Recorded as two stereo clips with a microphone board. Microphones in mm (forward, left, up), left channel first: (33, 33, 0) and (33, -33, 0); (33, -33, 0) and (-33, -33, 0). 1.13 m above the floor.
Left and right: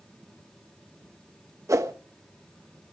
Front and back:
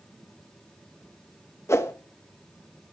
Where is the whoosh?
50° right, 1.3 m.